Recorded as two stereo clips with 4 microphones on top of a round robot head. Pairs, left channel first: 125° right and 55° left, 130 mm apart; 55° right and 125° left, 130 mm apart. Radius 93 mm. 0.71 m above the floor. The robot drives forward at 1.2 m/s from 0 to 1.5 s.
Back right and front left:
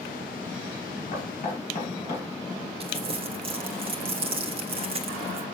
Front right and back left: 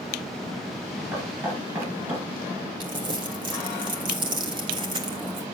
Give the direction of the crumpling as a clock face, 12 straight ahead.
9 o'clock.